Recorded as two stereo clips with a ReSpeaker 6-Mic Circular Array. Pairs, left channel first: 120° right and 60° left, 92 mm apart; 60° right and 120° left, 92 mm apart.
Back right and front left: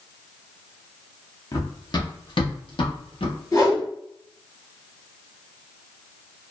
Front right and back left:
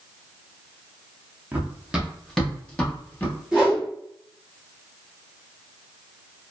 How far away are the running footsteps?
About 1.6 m.